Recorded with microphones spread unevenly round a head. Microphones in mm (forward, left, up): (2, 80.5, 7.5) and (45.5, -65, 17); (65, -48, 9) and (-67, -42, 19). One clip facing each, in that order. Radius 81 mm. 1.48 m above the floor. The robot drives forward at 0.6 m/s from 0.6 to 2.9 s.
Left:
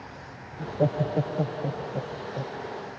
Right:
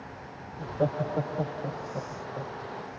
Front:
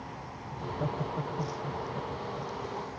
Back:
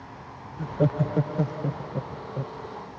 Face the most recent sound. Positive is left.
turn(degrees=180)